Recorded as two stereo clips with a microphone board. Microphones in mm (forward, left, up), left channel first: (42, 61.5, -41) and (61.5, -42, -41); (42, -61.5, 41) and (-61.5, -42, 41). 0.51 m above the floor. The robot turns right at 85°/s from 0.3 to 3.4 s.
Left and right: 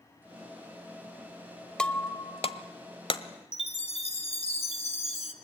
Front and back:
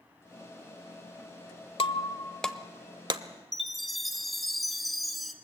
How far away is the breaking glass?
About 0.9 m.